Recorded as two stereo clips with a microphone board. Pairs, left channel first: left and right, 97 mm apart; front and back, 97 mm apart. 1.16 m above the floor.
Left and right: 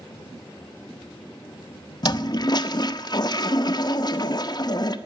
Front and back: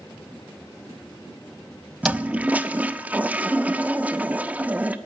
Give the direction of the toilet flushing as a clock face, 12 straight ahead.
8 o'clock.